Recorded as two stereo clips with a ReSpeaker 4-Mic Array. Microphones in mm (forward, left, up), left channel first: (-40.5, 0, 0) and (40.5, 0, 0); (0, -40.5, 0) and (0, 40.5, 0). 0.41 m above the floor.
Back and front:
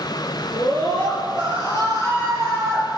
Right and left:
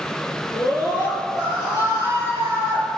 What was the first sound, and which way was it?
A scream, 135° right.